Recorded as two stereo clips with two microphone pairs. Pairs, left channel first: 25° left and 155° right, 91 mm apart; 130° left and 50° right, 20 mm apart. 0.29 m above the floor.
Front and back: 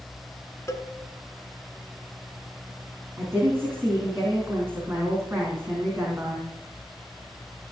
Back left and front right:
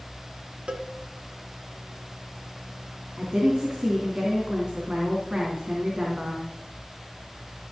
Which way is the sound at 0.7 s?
35° right.